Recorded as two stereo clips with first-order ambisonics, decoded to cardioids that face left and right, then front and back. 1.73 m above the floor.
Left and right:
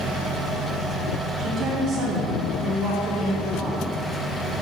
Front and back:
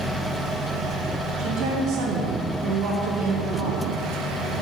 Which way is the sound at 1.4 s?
130° right.